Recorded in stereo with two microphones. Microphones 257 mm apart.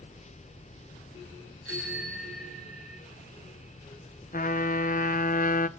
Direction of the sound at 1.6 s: 65° right (ahead or behind).